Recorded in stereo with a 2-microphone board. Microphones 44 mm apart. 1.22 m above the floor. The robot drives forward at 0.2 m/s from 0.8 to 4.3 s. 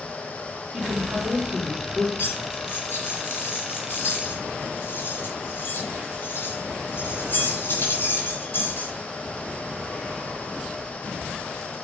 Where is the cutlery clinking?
55° left (ahead or behind), 3 m; by 8.9 s 50° left (ahead or behind), 3 m.